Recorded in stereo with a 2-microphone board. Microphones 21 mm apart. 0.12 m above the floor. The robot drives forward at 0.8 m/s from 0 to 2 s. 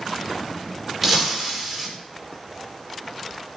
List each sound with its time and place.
1.0 s breaking glass: 10° right (ahead or behind), 7 m